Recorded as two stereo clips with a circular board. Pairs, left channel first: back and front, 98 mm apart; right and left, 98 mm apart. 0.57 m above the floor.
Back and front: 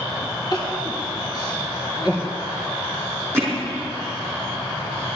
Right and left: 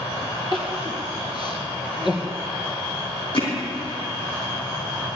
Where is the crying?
130° right, 2 m.